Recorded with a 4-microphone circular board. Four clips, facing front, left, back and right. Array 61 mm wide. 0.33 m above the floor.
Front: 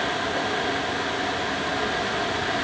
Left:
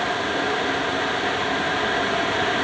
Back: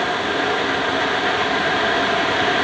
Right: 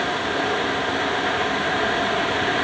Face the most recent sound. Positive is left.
No sound to turn to.